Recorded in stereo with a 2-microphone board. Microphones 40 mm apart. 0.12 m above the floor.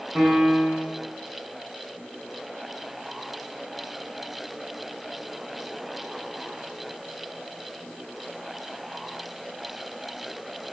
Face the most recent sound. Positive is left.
turn(degrees=0)  # may be behind; listen again after turning